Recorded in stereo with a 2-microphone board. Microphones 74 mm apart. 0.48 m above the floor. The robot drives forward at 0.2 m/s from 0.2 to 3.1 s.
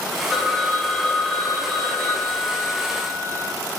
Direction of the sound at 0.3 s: 15° left (ahead or behind).